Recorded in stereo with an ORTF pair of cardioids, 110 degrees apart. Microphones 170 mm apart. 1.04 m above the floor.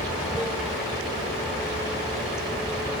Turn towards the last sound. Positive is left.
turn(degrees=-5)